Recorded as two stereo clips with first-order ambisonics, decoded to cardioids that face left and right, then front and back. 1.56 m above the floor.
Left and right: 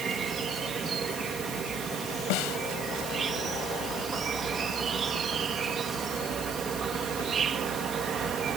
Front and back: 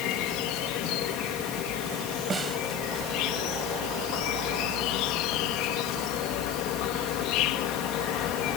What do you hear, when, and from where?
0.0 s an insect: 25° right
2.3 s a snare drum: 105° left